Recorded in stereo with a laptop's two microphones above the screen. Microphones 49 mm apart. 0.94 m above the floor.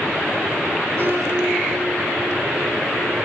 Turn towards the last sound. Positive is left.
turn(degrees=-60)  # may be behind; listen again after turning